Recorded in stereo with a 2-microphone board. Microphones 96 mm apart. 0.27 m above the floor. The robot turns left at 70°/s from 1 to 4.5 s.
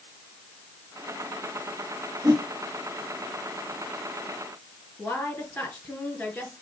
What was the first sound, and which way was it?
A whoosh, 35° right (ahead or behind).